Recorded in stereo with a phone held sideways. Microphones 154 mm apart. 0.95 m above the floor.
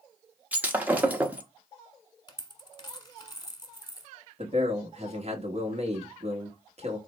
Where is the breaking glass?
10° right (ahead or behind), 0.7 m.